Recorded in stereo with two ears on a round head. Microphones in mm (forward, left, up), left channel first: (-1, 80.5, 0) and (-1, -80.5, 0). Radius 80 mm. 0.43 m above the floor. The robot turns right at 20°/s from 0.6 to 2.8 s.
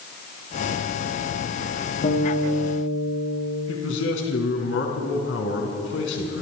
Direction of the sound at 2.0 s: 45° left (ahead or behind).